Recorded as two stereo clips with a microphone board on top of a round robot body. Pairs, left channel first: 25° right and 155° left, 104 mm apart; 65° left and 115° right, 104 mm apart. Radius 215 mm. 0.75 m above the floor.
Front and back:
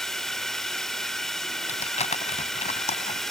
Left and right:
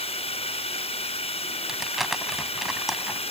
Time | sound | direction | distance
0.0 | a drone | 65° left | ?
1.7 | crumpling | 25° right | ?